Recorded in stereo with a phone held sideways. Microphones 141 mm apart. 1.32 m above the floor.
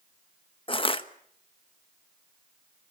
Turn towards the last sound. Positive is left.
turn(degrees=40)  # may be behind; listen again after turning